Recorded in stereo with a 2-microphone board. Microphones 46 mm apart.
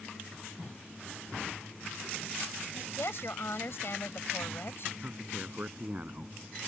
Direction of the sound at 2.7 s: 55° left (ahead or behind).